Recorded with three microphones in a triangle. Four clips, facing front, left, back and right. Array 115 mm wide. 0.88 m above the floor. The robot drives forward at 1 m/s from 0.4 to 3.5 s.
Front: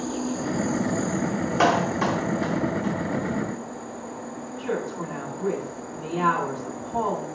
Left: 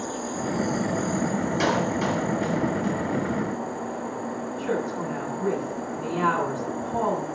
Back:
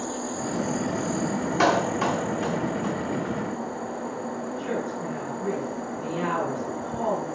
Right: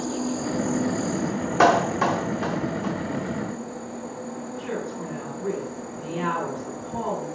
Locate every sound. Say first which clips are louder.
0.0 s an insect: right 2 dB, front 2 dB; 65° right, 0.7 m; by 7.4 s 165° right, 3 m
1.6 s a clap: right 8 dB, front 1 dB; 85° right, 2.5 m; by 2.9 s 120° right, 2.5 m
4.6 s a woman speaking: left 4 dB, front 4 dB; 60° left, 7.5 m